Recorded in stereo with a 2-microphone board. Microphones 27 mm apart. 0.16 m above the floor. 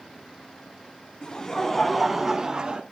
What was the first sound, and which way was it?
Laughter, 30° left (ahead or behind).